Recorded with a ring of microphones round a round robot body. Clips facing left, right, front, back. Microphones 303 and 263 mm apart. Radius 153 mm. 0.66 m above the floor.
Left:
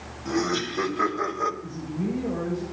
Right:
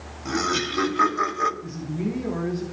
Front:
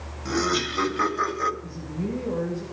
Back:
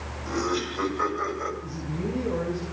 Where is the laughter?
30° right, 3 m; by 1.5 s 45° right, 2.5 m.